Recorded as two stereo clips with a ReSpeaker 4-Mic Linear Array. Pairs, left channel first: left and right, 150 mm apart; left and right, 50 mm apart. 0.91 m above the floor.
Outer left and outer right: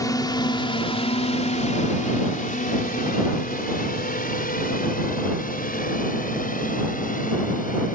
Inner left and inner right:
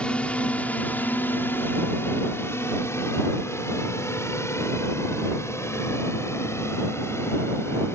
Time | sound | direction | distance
0.0 | a drone | 25° left (ahead or behind) | ?